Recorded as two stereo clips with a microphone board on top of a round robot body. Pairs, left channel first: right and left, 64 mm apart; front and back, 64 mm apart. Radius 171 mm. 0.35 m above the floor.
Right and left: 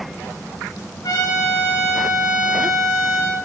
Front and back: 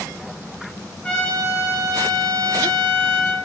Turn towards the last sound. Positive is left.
turn(degrees=-75)